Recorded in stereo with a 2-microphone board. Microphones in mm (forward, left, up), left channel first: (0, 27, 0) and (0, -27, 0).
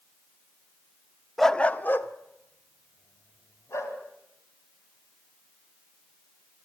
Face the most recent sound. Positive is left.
turn(degrees=60)  # may be behind; listen again after turning